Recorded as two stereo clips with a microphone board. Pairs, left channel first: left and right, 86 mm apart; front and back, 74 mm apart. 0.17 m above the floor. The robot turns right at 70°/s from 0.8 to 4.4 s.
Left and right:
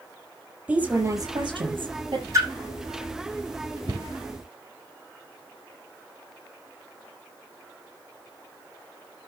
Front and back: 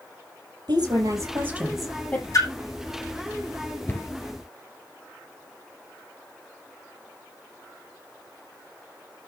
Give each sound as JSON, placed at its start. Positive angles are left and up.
{"t": 0.7, "sound": "a woman speaking", "azimuth_deg": -160, "distance_m": 6.0}
{"t": 2.3, "sound": "a splash", "azimuth_deg": -40, "distance_m": 7.5}
{"t": 3.9, "sound": "a cupboard door", "azimuth_deg": -65, "distance_m": 2.5}